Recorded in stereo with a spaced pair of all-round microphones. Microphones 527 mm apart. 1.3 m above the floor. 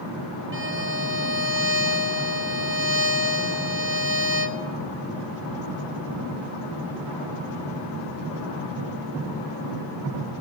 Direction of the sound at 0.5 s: 20° right (ahead or behind).